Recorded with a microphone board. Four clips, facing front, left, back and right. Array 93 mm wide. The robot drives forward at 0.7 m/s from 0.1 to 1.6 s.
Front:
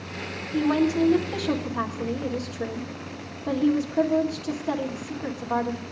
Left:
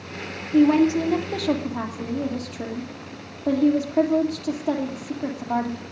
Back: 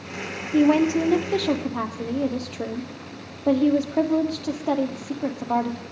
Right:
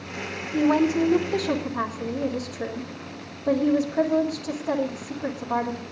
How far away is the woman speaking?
About 2 m.